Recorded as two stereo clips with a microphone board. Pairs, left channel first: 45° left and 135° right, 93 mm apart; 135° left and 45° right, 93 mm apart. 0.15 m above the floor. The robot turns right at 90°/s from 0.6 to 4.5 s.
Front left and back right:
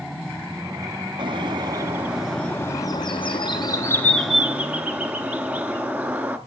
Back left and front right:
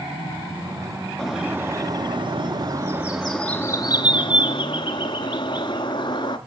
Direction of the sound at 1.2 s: 140° right.